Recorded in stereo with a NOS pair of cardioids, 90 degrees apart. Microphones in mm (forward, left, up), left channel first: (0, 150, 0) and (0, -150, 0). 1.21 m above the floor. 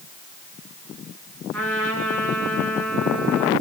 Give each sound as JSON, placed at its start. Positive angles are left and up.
{"t": 1.5, "sound": "a trumpet", "azimuth_deg": 5, "distance_m": 8.0}